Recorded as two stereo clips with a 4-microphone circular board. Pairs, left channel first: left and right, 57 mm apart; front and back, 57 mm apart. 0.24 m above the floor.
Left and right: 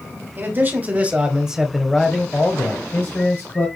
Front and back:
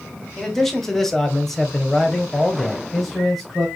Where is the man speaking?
80° right, 1.2 m; by 3.7 s 85° left, 1.4 m.